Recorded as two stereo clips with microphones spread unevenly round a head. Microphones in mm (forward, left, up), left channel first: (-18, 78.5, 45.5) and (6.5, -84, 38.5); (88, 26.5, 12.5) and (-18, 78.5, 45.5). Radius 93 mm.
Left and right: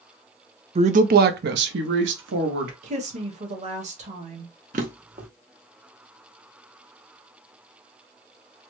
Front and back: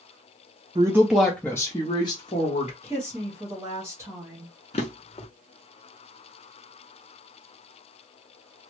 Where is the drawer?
70° right, 0.5 m.